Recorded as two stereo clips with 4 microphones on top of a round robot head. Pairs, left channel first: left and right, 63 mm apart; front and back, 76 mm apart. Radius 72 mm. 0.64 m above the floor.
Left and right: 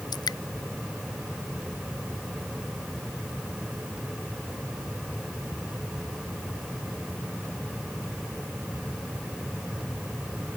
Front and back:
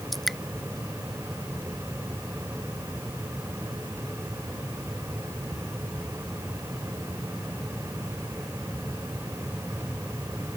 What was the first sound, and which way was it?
Dripping, 90° left.